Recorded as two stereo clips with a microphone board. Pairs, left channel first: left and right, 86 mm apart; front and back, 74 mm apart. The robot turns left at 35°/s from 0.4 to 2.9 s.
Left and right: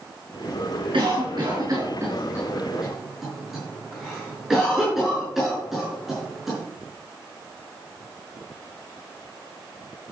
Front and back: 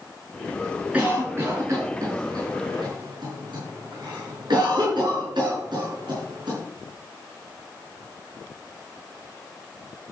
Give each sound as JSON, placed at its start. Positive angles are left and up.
{"t": 0.9, "sound": "a cough", "azimuth_deg": -110, "distance_m": 5.0}